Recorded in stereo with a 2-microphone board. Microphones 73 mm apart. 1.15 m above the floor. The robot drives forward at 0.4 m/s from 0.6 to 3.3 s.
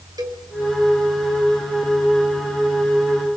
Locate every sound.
0.2 s a cowbell: 65° right (ahead or behind), 5.5 m